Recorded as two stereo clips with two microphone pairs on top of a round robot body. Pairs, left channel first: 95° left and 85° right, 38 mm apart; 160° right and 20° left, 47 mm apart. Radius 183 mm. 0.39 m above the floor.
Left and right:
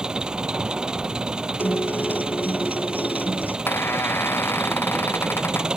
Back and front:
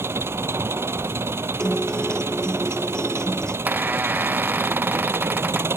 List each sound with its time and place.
0.0 s an engine running: 20° right
1.6 s a guitar: 125° left
3.7 s a squeak: 75° left